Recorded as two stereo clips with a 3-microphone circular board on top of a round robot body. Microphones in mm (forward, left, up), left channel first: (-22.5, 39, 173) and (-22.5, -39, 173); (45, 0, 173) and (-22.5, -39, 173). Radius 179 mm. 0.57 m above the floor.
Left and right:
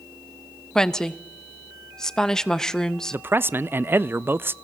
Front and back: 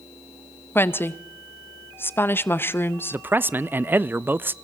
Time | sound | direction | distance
0.8 | a woman speaking | 15° left | 1.0 m
3.1 | a man speaking | 115° right | 0.7 m